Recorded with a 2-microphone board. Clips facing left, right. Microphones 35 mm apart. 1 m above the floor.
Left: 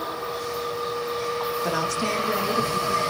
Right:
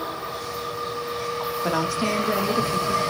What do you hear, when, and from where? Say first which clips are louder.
1.6 s a woman speaking: right 4 dB; 20° right (ahead or behind), 1.5 m